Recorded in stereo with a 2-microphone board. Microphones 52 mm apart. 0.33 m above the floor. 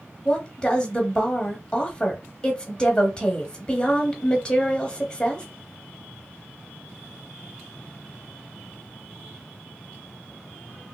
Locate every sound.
0.2 s a woman speaking: 15° left (ahead or behind), 0.9 m